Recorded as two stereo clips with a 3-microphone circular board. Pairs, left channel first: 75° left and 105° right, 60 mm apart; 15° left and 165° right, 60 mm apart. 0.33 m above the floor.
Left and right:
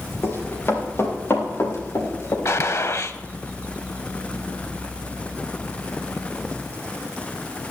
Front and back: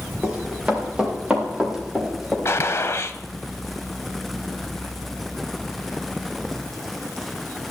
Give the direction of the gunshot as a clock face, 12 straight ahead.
10 o'clock.